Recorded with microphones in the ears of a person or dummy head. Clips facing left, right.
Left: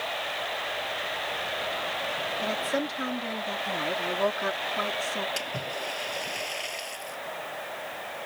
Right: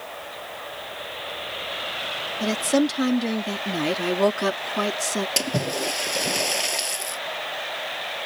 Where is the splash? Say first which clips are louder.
Right 8 dB; 75° right (ahead or behind).